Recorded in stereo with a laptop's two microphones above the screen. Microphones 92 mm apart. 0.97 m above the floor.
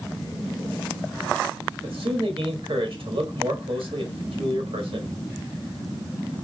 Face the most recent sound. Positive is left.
turn(degrees=-75)  # may be behind; listen again after turning